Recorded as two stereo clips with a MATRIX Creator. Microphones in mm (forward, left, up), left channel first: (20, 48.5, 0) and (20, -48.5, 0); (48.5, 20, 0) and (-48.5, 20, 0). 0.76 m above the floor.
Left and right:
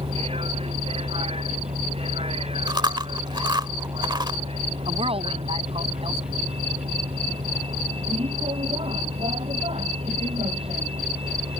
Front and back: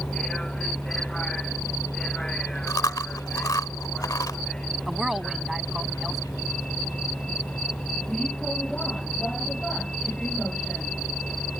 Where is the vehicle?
85° right.